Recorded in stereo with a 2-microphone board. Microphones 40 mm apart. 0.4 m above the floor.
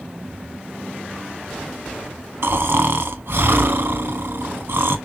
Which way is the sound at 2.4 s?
65° right (ahead or behind).